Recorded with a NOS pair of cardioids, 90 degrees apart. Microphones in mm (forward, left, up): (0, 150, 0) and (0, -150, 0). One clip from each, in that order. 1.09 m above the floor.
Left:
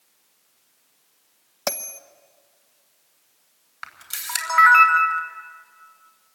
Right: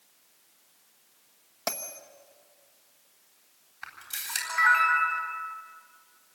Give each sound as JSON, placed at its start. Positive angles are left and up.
{"t": 1.7, "sound": "a bell", "azimuth_deg": 45, "distance_m": 1.0}
{"t": 3.8, "sound": "a camera shutter", "azimuth_deg": 55, "distance_m": 3.5}